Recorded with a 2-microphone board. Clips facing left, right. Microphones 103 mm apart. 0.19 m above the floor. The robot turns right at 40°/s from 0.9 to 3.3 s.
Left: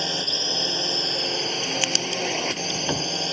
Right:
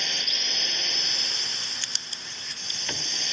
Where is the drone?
40° left; by 3.3 s 135° left.